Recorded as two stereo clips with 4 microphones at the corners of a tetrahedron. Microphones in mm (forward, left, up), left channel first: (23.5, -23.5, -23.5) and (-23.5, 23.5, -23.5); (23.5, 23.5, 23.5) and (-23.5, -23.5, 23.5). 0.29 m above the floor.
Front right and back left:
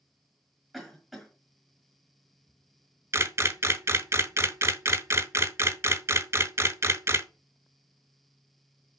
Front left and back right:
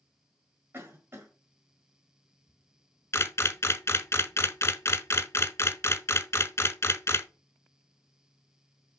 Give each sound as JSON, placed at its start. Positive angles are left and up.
{"t": 0.7, "sound": "a cough", "azimuth_deg": -135, "distance_m": 1.6}
{"t": 3.1, "sound": "a camera shutter", "azimuth_deg": 90, "distance_m": 0.6}